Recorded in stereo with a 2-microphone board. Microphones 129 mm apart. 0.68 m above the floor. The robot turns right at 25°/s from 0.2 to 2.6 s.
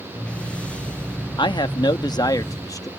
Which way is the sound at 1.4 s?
100° left.